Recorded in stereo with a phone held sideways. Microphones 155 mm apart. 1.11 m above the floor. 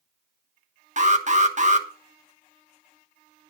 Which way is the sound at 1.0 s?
55° right (ahead or behind).